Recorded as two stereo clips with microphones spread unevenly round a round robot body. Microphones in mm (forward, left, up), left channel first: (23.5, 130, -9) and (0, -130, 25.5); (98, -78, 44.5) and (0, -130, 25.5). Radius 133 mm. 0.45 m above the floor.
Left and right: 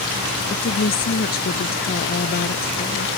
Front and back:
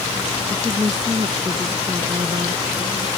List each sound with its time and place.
0.5 s a woman speaking: 140° left